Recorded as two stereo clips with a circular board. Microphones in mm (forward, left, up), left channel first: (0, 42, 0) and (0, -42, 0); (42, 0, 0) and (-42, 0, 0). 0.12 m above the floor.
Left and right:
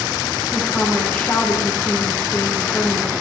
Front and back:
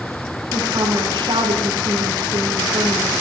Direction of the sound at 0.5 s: 155° left.